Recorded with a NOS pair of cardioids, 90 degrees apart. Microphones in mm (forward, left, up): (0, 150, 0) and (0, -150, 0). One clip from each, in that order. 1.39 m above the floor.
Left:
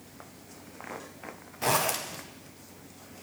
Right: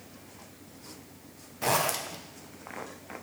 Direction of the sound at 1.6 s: 5° left.